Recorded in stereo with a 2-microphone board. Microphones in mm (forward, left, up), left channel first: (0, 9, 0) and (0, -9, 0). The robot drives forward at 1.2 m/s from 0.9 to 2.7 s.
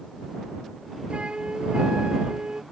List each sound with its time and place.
1.1 s a flute: 70° right (ahead or behind); by 2.6 s 60° right (ahead or behind)